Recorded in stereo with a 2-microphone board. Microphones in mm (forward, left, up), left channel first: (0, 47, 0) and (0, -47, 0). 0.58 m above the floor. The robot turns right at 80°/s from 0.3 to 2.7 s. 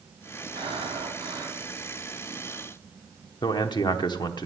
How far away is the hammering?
No hammering in this recording.